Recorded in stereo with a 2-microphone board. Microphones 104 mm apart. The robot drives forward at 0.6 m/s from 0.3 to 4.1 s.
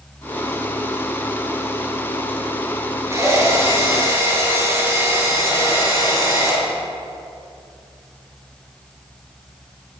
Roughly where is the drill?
Right.